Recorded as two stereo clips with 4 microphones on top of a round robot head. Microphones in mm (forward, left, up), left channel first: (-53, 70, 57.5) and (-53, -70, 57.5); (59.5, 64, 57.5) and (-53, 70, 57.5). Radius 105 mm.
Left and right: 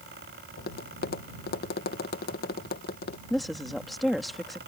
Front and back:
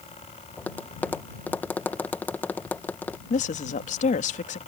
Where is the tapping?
70° left.